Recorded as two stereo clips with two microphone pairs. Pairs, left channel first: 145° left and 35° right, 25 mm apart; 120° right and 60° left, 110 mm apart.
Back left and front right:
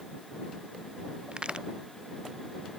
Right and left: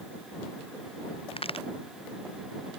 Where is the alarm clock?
I don't hear an alarm clock.